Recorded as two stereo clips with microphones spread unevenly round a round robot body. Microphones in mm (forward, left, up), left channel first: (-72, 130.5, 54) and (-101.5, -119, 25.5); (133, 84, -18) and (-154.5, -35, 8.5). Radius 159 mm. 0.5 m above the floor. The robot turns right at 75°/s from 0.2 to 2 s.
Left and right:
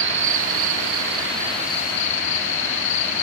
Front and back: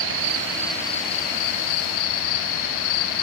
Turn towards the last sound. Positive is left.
turn(degrees=30)